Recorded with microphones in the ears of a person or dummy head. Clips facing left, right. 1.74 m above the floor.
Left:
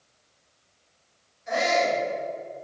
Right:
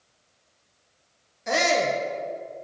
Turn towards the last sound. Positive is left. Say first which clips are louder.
# even
turn(degrees=-85)